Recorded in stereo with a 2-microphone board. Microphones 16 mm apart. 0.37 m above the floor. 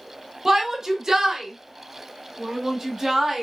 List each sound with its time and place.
0.5 s a shout: 25° right (ahead or behind), 1.2 m; by 3.4 s 30° right (ahead or behind), 2.0 m